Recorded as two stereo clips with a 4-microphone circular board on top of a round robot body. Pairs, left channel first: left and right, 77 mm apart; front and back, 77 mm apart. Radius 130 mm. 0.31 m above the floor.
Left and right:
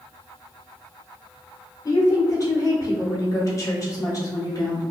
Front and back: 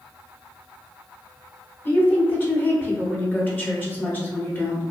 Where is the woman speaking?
60° left, 1.1 m.